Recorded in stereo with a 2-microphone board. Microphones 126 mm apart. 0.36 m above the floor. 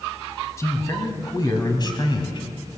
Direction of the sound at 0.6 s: 25° left (ahead or behind).